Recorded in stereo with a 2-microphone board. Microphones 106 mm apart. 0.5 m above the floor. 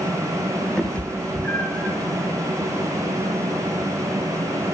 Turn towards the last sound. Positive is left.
turn(degrees=15)  # may be behind; listen again after turning